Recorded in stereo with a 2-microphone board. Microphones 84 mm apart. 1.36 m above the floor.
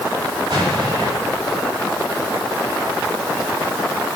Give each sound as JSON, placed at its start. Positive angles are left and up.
{"t": 0.5, "sound": "an explosion", "side_deg": -70, "distance_m": 9.5}